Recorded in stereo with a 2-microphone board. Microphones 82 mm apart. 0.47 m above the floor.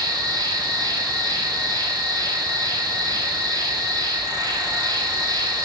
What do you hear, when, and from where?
0.0 s an insect: 60° right (ahead or behind), 0.7 m